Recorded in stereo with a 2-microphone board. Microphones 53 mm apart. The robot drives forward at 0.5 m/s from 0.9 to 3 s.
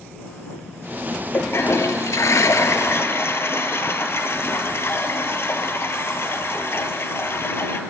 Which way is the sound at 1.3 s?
50° left (ahead or behind).